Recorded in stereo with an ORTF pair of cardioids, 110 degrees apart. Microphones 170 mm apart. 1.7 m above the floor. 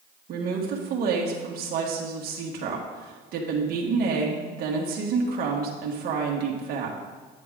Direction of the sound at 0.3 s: 65° right.